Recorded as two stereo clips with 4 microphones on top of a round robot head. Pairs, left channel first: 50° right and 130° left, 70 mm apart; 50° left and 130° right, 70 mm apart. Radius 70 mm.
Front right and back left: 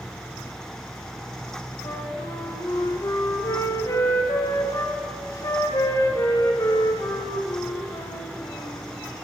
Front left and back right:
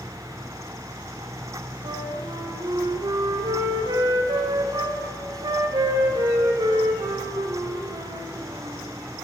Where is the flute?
100° right, 0.8 m.